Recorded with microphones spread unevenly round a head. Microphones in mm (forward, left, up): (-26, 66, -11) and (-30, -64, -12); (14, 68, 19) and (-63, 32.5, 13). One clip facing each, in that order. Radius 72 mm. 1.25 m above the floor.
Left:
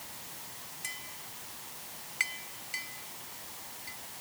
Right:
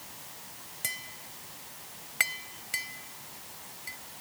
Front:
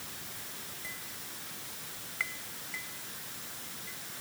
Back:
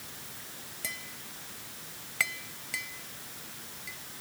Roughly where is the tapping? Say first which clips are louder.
Right 5 dB, back 2 dB; behind right.